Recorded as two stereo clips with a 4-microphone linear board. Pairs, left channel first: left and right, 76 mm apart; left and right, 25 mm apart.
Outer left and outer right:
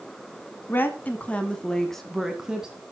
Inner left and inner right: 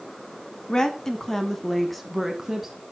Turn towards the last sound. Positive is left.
turn(degrees=-15)  # may be behind; listen again after turning